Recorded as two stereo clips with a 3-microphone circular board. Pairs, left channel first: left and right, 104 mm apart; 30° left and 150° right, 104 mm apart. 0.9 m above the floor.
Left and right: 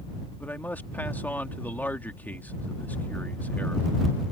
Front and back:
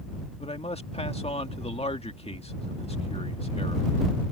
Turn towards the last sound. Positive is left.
turn(degrees=15)